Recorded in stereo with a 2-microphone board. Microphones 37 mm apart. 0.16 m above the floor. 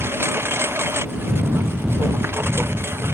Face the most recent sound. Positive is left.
turn(degrees=-85)